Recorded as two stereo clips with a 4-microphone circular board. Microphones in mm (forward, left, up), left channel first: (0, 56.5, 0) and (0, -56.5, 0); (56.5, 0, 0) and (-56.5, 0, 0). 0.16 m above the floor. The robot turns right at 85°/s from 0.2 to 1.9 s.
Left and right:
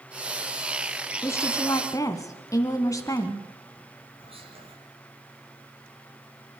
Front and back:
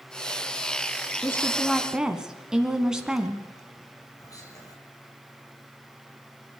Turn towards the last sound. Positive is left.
turn(degrees=-60)